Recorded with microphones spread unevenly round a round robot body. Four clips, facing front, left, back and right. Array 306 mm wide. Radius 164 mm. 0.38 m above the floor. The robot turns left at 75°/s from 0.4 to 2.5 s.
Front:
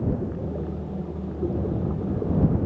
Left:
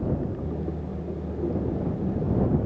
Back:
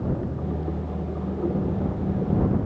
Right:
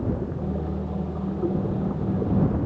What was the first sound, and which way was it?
Only background noise.